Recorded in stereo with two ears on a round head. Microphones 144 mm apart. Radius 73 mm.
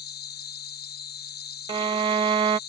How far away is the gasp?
I don't hear a gasp.